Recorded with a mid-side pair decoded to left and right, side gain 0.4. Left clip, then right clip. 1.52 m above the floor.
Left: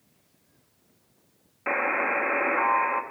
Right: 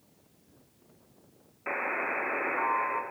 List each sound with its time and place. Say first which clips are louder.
1.7 s a buzzer: left 6 dB; 45° left, 1.2 m